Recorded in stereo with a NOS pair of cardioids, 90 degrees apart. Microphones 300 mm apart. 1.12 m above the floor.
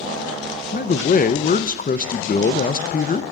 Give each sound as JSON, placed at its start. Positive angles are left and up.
{"t": 0.7, "sound": "a man speaking", "azimuth_deg": 30, "distance_m": 0.7}